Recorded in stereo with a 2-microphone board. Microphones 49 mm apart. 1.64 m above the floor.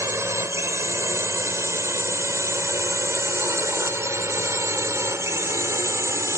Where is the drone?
70° right (ahead or behind); by 6.4 s 80° right.